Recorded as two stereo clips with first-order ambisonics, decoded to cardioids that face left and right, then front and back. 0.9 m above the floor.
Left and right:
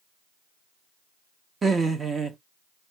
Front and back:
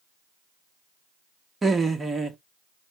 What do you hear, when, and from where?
1.6 s laughter: 125° right, 0.5 m